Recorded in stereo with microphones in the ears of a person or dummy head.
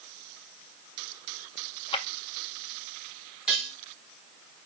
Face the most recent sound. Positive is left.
turn(degrees=-5)  # may be behind; listen again after turning